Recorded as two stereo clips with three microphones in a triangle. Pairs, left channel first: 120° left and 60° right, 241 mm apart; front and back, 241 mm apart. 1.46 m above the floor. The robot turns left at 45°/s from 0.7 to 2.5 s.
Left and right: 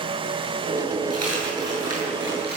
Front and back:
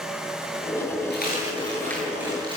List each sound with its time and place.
1.1 s a dropped coin: 45° right, 10 m; by 2.6 s 110° right, 10 m